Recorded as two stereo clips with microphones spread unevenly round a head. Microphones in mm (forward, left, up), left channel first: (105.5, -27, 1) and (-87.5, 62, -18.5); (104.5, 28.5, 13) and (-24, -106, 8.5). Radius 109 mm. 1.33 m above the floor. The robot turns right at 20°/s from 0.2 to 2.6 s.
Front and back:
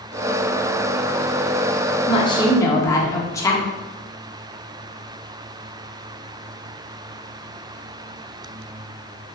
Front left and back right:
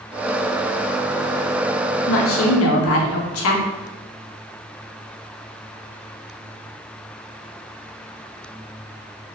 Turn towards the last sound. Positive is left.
turn(degrees=55)